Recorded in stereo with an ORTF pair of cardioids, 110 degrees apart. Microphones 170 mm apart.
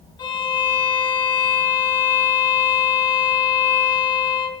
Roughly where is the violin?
Ahead left.